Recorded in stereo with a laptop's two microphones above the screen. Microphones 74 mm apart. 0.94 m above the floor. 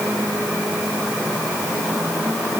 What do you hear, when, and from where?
Only background noise.